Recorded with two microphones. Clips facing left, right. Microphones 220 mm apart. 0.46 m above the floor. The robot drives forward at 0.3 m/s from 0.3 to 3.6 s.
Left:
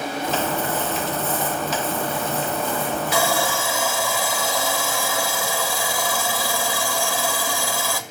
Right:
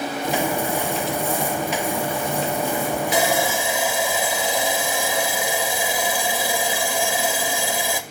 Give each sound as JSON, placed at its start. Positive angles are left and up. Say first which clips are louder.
{"t": 3.1, "sound": "sawing", "louder": "right 1 dB", "side_deg": -20, "distance_m": 2.0}